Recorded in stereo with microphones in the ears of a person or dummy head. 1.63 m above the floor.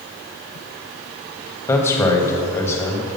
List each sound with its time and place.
1.7 s a man speaking: 10° left (ahead or behind), 1.0 m